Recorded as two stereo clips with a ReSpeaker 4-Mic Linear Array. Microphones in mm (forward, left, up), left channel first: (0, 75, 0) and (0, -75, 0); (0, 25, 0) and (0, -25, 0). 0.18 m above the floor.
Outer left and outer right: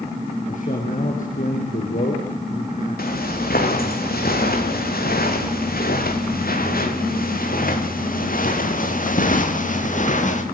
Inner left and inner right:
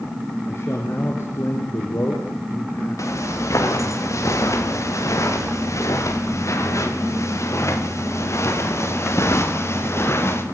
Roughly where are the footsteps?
Left.